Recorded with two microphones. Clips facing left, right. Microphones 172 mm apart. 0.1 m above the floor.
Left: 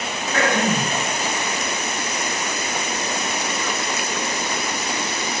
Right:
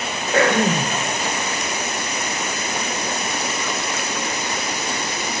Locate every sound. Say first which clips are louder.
0.3 s throat clearing: right 3 dB; 65° right (ahead or behind), 2.5 m